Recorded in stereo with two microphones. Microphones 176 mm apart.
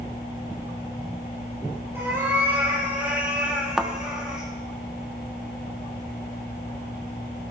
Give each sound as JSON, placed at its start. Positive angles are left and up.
{"t": 1.9, "sound": "a cat meowing", "side_deg": -15, "distance_m": 6.5}
{"t": 3.8, "sound": "a thud", "side_deg": -5, "distance_m": 1.2}